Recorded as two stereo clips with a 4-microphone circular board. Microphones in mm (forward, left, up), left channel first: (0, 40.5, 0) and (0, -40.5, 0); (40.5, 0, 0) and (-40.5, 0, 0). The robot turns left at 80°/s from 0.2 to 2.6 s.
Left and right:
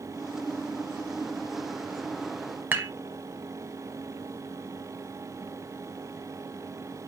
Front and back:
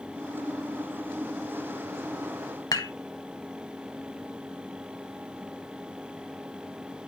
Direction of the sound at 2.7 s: 25° right.